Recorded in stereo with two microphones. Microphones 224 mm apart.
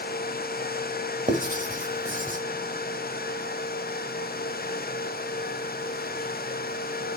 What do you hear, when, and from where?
1.3 s writing: 35° right (ahead or behind), 1.1 m